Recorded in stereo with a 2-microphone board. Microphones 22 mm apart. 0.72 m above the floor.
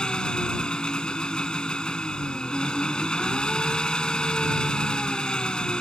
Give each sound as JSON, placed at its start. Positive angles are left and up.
{"t": 0.0, "sound": "an engine running", "side_deg": 45}